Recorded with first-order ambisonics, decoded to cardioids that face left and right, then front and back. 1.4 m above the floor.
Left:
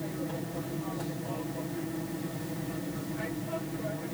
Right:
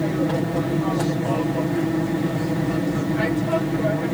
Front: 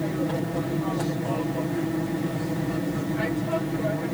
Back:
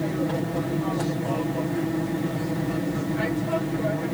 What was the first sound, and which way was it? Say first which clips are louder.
An aircraft: right 14 dB, back 1 dB; 95° right.